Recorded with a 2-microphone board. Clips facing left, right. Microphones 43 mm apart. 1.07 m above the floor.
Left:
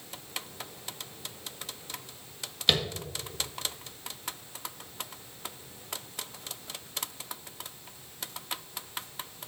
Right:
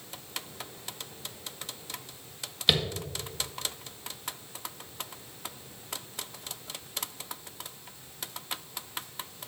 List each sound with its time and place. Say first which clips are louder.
2.7 s tapping: even; 5° right (ahead or behind), 1.7 m